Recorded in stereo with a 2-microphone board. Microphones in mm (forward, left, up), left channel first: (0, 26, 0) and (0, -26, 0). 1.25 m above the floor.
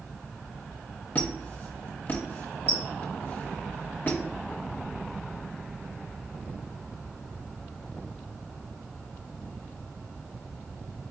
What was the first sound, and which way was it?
A squeak, 40° left (ahead or behind).